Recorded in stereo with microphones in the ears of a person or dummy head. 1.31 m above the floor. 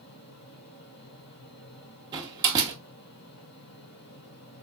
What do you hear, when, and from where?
0.0 s a fan: 55° left (ahead or behind), 2.5 m
2.1 s a door slam: 25° right (ahead or behind), 1.2 m